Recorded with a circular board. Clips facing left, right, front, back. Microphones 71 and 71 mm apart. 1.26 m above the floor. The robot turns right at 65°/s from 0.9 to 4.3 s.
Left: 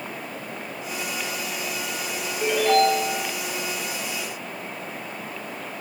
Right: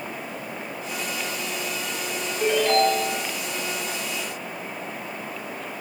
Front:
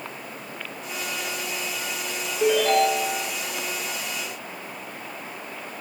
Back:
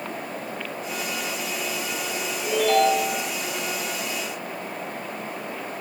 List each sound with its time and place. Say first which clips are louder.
2.4 s a ringtone: left 1 dB, front 1 dB; 15° right, 7.5 m; by 3.1 s 35° left, 7.5 m